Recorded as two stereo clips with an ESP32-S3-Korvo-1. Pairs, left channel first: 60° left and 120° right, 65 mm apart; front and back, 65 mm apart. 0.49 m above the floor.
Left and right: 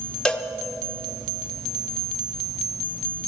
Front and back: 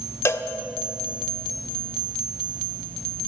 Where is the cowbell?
10° right, 0.6 m.